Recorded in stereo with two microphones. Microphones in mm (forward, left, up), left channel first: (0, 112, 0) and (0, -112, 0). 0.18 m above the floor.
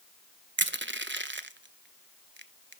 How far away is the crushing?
About 0.7 m.